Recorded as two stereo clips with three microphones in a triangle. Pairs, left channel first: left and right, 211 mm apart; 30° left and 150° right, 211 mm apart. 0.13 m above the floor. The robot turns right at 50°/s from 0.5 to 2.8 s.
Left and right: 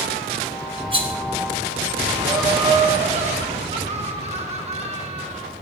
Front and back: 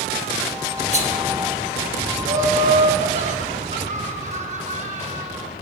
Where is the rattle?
135° right, 1.8 m; by 1.1 s 120° right, 1.8 m.